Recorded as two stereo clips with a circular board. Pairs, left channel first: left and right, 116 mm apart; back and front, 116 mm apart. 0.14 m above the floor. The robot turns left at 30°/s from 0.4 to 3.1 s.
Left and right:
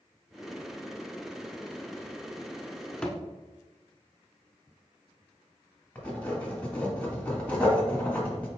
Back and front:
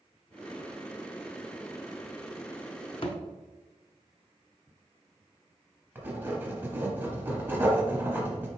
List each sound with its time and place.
3.0 s a thud: 170° left, 0.6 m; by 3.2 s 165° left, 0.6 m
6.0 s writing: 35° left, 1.4 m